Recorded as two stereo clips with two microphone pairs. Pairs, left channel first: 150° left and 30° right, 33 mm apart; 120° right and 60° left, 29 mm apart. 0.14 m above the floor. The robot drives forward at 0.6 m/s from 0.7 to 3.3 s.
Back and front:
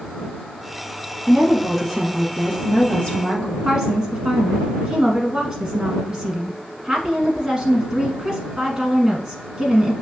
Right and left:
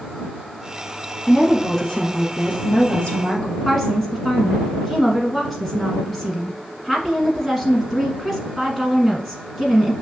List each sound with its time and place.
1.3 s a woman speaking: 85° right, 1.2 m; by 3.5 s 160° right, 1.6 m
3.6 s a woman speaking: 50° right, 1.1 m